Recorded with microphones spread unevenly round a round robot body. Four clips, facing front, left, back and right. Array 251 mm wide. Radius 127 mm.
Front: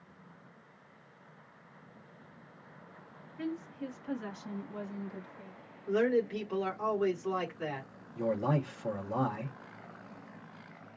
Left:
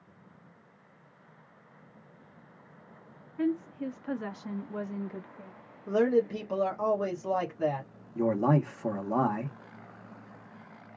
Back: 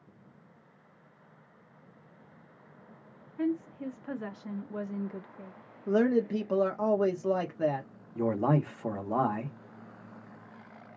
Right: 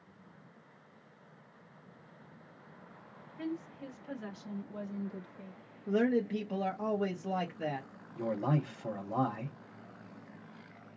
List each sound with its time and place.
3.4 s a woman speaking: 105° left, 2 m; by 5.5 s 175° right, 0.7 m
5.9 s a man speaking: 170° left, 1.8 m
8.2 s a man speaking: 115° left, 1.7 m